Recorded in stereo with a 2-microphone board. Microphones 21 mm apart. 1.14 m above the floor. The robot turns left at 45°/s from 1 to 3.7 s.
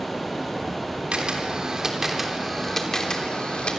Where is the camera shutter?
120° right, 3.5 m; by 3.8 s 125° left, 3.5 m.